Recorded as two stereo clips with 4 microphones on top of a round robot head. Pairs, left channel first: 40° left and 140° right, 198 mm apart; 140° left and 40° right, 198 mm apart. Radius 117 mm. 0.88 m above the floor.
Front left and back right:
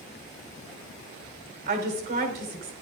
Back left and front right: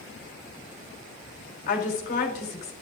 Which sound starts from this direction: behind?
A woman speaking, at 1.7 s.